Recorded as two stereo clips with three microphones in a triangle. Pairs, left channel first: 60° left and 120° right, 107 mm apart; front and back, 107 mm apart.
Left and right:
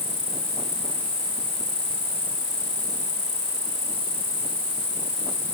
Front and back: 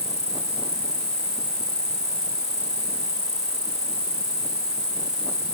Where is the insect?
130° right.